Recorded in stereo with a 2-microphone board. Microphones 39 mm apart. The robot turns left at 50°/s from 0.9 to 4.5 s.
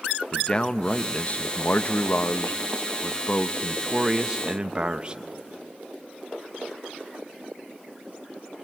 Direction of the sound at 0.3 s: 150° left.